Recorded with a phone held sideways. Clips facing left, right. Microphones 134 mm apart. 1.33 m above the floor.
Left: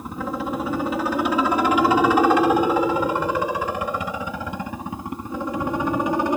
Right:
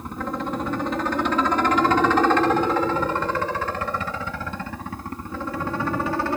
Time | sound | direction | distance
0.0 | a helicopter | 5° left (ahead or behind) | ?